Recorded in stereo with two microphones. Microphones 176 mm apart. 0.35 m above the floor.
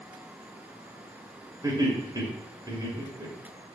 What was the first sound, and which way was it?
Laughter, 20° right (ahead or behind).